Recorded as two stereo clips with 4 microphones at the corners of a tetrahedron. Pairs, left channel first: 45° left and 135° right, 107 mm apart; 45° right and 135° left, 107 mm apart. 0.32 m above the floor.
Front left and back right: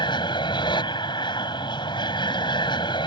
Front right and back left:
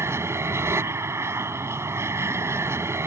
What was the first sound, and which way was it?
An aircraft, 75° left.